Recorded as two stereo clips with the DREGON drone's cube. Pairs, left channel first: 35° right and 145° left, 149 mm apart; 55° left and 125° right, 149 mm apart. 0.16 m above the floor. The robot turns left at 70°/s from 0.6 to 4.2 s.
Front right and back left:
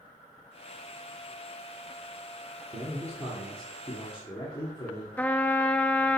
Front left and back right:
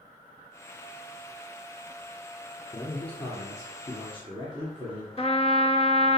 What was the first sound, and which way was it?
A man speaking, 115° left.